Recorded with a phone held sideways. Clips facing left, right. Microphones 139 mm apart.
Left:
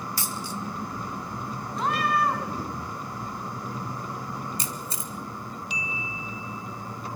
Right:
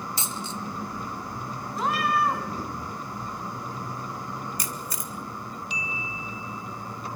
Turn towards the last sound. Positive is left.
turn(degrees=30)  # may be behind; listen again after turning